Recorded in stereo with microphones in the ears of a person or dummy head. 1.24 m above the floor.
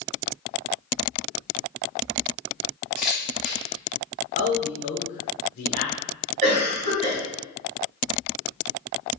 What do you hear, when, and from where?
3.0 s a camera shutter: 5° left (ahead or behind), 0.9 m
4.3 s a man speaking: 35° left (ahead or behind), 0.6 m
6.4 s a cough: 40° right (ahead or behind), 1.9 m